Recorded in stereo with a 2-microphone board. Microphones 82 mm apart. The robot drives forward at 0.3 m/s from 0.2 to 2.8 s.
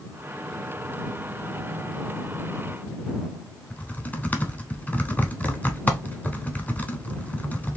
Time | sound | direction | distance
3.7 | typing on a keyboard | 20° left (ahead or behind) | 0.8 m